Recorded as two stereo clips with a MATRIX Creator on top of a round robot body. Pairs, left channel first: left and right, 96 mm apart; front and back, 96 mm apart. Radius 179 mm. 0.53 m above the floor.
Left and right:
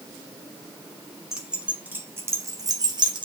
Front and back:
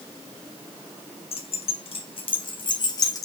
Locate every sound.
1.3 s keys jangling: 5° right, 2.5 m; by 3.2 s 55° right, 2.5 m